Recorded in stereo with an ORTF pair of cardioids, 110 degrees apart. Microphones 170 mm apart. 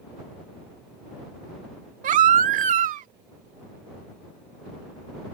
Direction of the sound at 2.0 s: 50° right.